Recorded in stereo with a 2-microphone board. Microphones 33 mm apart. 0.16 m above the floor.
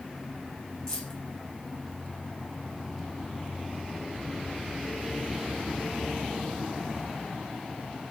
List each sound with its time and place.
0.9 s keys jangling: 15° left (ahead or behind), 3 m